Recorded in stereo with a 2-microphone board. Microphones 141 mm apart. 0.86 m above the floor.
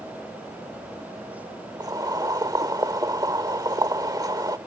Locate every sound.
1.8 s boiling: 25° right (ahead or behind)